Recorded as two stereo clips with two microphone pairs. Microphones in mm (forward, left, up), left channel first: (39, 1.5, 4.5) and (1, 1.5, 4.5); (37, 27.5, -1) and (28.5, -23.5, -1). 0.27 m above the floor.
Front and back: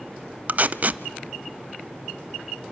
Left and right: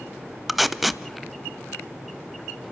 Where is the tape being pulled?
175° left, 0.7 m.